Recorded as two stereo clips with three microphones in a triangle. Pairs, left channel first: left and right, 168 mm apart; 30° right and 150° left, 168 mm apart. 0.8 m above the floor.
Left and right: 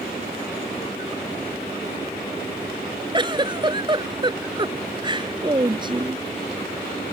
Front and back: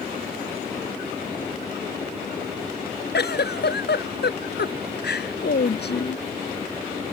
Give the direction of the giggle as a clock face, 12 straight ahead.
1 o'clock.